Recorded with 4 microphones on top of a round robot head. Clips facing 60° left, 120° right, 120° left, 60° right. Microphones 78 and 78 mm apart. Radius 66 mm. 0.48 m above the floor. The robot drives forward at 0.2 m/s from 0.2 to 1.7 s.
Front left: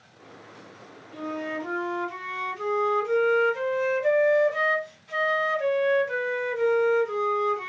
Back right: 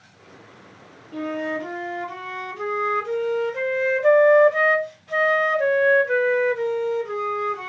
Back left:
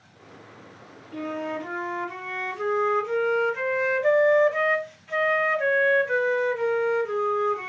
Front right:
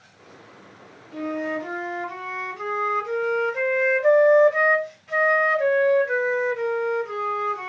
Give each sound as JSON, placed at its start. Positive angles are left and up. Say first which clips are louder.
{"t": 1.1, "sound": "a flute", "louder": "back right 5 dB, front right 3 dB", "azimuth_deg": -130, "distance_m": 0.7}